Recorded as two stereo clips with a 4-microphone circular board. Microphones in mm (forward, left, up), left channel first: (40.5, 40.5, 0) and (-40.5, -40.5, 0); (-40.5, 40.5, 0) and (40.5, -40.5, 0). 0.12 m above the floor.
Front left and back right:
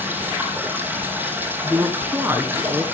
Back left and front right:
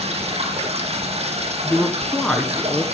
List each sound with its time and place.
0.0 s running water: 65° right, 4.5 m
1.6 s a man speaking: 160° right, 1.6 m